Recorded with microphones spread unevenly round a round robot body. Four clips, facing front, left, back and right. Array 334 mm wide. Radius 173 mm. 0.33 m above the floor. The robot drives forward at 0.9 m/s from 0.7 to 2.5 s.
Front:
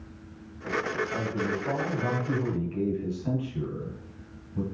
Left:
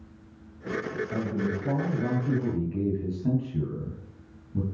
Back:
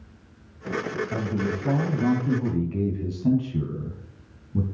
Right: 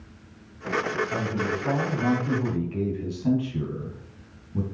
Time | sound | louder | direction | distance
1.1 | a man speaking | right 2 dB, back 2 dB | straight behind | 2 m